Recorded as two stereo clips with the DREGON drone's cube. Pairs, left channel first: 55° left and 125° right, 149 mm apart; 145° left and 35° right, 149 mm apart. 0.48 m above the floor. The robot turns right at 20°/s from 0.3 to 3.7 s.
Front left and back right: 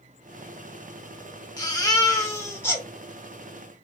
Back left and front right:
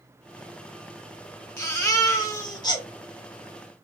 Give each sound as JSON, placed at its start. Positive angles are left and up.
{"t": 1.6, "sound": "a baby crying", "azimuth_deg": 90, "distance_m": 0.7}